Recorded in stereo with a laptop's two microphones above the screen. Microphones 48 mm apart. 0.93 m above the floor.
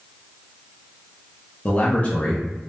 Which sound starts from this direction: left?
A man speaking, at 1.6 s.